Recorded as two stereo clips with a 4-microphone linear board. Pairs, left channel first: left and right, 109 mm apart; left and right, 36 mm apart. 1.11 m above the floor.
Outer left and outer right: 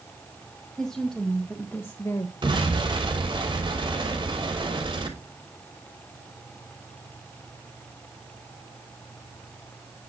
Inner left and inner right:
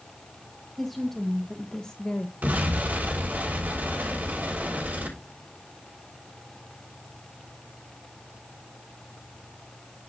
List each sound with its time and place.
0.8 s a woman speaking: centre (ahead or behind), 1.6 m; by 2.3 s 35° left (ahead or behind), 0.9 m
2.4 s an explosion: 50° right (ahead or behind), 5.5 m